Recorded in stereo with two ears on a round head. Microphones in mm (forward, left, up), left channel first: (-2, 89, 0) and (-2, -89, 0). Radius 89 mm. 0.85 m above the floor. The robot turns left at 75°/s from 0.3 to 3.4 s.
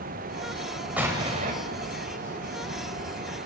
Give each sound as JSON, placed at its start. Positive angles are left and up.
{"t": 1.0, "sound": "an explosion", "azimuth_deg": -5, "distance_m": 5.0}